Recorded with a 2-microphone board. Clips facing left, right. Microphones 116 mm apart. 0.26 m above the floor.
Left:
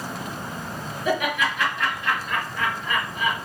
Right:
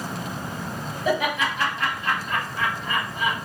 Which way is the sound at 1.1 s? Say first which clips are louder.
Even; 35° right (ahead or behind).